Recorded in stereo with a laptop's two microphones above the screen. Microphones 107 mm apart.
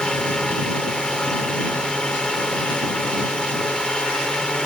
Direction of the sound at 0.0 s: 10° left (ahead or behind).